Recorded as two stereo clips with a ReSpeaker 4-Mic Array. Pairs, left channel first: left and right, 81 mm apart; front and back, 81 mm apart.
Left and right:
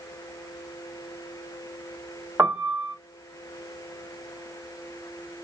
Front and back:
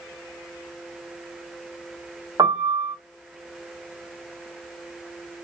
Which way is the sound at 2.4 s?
155° right.